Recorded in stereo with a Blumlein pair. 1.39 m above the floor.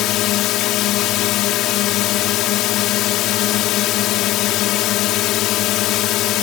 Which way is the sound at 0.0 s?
35° left.